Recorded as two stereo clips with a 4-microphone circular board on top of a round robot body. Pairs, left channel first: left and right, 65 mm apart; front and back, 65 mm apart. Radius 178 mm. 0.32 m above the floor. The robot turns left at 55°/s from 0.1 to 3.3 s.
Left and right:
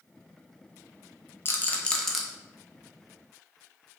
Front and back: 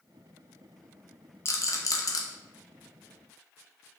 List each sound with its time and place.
1.4 s a rattle: 40° left, 0.6 m; by 2.2 s straight ahead, 0.6 m